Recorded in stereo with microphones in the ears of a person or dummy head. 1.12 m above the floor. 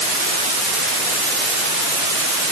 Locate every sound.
Only background noise.